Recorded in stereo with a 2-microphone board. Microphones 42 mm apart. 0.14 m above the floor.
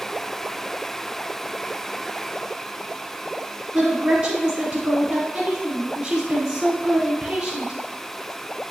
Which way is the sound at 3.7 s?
20° right (ahead or behind).